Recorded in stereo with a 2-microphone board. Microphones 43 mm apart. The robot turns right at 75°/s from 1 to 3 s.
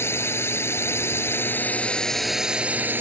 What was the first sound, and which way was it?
A drone, 85° left.